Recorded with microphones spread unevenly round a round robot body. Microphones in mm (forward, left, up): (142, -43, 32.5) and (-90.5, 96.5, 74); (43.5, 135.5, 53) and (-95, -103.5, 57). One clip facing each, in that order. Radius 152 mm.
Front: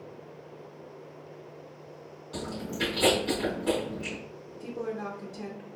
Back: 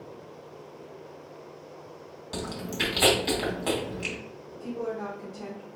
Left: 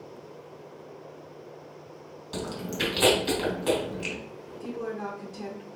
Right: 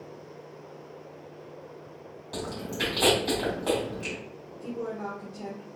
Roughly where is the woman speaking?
Ahead.